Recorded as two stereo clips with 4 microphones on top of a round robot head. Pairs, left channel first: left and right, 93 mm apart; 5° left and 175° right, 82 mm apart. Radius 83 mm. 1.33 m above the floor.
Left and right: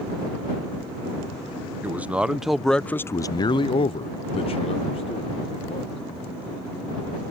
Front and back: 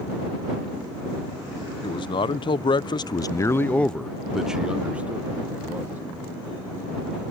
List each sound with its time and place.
1.8 s a man speaking: 20° right; by 6.0 s 120° left